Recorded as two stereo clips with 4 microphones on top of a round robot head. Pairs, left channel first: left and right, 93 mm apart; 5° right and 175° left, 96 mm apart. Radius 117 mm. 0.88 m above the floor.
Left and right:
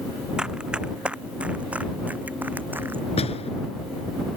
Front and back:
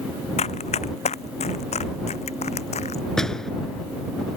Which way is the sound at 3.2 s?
80° left.